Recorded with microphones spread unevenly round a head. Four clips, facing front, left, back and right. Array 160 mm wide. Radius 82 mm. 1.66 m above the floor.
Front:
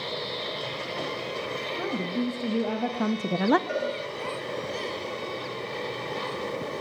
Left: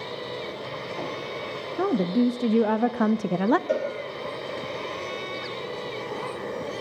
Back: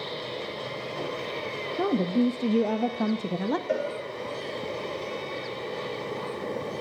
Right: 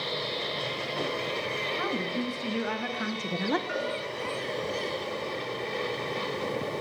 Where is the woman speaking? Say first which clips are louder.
Left 12 dB, back 7 dB; 120° left, 2.0 m; by 3.6 s 45° left, 0.9 m.